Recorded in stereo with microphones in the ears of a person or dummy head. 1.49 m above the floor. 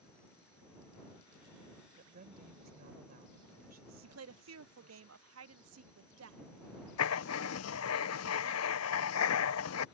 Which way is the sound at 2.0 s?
45° right (ahead or behind).